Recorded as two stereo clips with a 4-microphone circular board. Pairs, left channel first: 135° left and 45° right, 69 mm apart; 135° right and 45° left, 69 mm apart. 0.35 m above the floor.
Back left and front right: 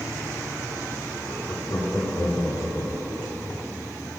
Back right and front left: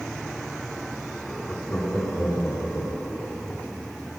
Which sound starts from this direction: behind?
Laughter, at 1.2 s.